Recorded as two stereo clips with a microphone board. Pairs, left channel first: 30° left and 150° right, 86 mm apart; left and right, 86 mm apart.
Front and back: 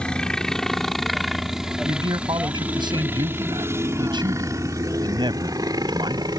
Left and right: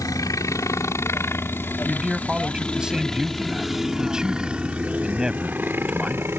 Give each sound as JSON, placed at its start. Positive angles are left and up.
{"t": 0.0, "sound": "a helicopter", "azimuth_deg": 105}
{"t": 1.9, "sound": "a man speaking", "azimuth_deg": -175}